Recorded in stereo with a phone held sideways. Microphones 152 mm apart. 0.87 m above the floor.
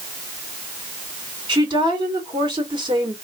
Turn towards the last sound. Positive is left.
turn(degrees=-30)  # may be behind; listen again after turning